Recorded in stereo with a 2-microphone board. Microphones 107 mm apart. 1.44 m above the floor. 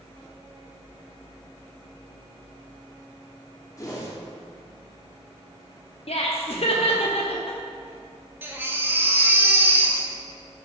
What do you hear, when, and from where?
3.8 s a whoosh: 30° left (ahead or behind), 1.2 m
6.1 s laughter: 60° left (ahead or behind), 0.6 m
8.4 s a baby crying: 20° right (ahead or behind), 0.8 m